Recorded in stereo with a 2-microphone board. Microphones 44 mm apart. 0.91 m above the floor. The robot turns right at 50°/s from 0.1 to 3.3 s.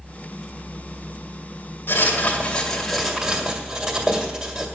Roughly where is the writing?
Behind left.